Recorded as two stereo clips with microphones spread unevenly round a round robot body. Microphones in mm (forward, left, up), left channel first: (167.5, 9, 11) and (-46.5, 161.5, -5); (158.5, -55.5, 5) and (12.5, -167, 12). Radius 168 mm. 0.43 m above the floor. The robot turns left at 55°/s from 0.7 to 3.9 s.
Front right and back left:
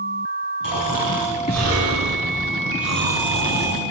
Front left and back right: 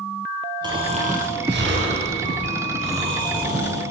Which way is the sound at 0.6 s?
75° right.